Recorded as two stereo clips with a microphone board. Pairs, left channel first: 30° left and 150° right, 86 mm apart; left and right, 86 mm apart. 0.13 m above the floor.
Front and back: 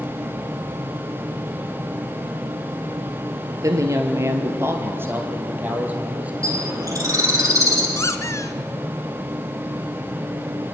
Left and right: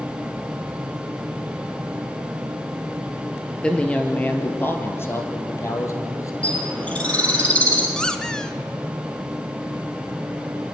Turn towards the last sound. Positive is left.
turn(degrees=15)